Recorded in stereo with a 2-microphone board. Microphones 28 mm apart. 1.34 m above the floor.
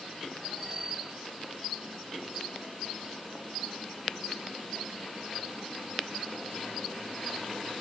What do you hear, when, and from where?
0.6 s a bicycle bell: 40° right (ahead or behind), 7.5 m